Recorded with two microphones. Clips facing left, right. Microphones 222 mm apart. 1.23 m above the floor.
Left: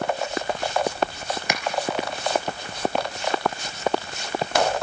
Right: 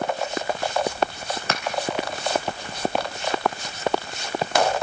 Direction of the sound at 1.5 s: 10° left (ahead or behind).